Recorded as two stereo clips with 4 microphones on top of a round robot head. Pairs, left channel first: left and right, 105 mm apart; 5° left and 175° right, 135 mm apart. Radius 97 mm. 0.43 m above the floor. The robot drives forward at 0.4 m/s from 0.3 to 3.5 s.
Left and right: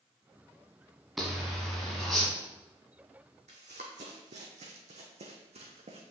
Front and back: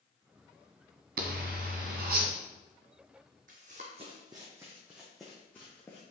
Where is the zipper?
Straight behind, 1.1 m.